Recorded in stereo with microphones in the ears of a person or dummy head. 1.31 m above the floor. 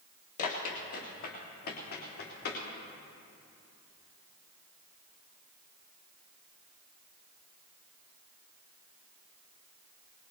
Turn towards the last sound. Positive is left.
turn(degrees=55)  # may be behind; listen again after turning